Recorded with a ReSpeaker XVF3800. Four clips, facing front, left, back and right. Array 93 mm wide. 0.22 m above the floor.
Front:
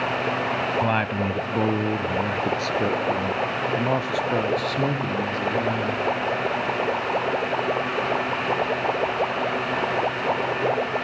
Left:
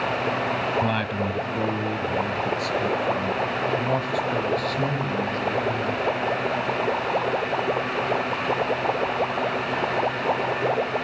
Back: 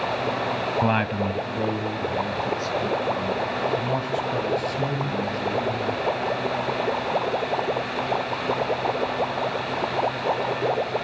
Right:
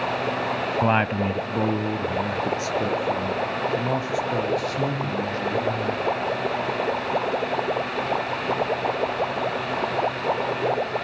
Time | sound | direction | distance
0.8 | a man speaking | 115° right | 1.0 m